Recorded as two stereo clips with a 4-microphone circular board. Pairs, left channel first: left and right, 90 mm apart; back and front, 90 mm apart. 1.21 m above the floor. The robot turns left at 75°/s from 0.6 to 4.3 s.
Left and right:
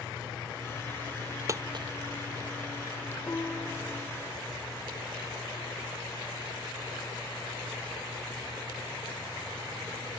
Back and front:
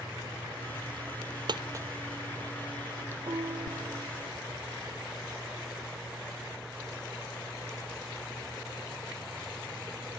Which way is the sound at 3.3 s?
35° left.